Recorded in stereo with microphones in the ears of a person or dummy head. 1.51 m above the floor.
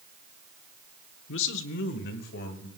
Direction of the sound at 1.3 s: 70° left (ahead or behind).